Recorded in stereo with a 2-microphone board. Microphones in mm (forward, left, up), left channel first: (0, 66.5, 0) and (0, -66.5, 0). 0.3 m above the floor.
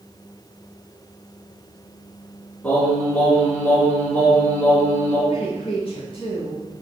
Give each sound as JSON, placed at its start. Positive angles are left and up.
{"t": 2.6, "sound": "singing", "side_deg": 10, "distance_m": 3.0}
{"t": 5.3, "sound": "a woman speaking", "side_deg": 40, "distance_m": 2.0}